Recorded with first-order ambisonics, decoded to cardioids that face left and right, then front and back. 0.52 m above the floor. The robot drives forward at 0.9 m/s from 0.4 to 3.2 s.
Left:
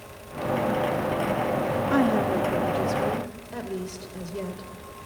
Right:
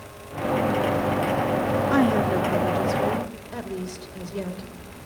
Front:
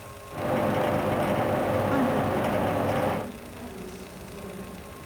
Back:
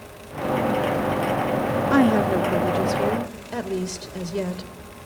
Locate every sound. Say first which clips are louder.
1.9 s a woman speaking: right 1 dB, back 6 dB; 160° right, 1.1 m; by 4.7 s 175° right, 1.9 m